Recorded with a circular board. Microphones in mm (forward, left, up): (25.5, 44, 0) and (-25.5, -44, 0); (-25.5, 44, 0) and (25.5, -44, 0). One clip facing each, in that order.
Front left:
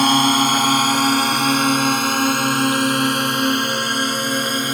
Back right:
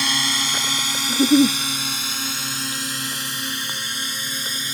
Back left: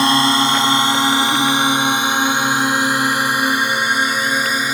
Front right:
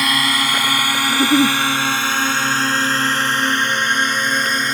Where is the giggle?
115° right.